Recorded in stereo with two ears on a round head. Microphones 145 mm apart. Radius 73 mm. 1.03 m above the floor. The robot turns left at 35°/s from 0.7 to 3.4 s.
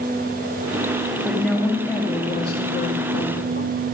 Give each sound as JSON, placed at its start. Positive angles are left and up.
{"t": 1.2, "sound": "a woman speaking", "azimuth_deg": -175, "distance_m": 2.5}